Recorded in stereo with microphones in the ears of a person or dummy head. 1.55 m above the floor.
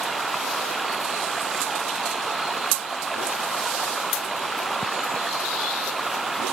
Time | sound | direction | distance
0.0 | running water | 5° left (ahead or behind) | ?